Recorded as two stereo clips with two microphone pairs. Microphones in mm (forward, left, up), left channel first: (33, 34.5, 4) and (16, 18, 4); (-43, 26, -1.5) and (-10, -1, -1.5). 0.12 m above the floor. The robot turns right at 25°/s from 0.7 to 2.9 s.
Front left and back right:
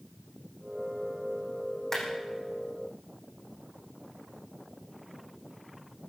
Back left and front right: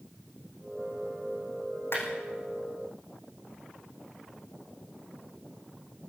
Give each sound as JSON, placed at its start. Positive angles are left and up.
{"t": 1.9, "sound": "a clap", "azimuth_deg": 110, "distance_m": 5.5}